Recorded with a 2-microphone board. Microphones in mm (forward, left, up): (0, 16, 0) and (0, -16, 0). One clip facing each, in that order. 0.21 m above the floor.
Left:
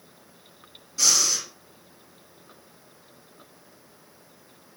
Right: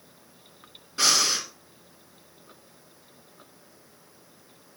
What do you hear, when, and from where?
1.0 s breathing: 40° right (ahead or behind), 2 m